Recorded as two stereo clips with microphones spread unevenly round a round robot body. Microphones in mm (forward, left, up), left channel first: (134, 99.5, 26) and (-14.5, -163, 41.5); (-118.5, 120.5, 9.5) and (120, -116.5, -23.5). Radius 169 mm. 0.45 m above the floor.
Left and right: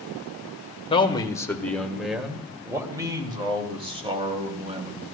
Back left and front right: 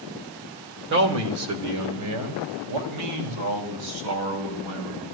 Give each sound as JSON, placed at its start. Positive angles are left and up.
{"t": 0.9, "sound": "a man speaking", "azimuth_deg": -5, "distance_m": 1.3}